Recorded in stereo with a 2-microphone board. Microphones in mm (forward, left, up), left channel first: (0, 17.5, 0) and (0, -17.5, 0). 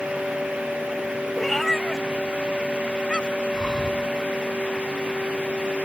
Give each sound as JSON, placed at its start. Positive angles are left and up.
{"t": 1.4, "sound": "a cat meowing", "side_deg": 5}
{"t": 3.5, "sound": "breathing", "side_deg": 20}